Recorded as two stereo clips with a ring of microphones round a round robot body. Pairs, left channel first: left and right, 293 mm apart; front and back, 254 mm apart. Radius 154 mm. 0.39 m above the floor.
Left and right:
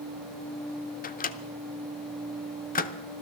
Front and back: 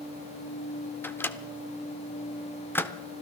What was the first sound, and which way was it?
A microwave, 75° left.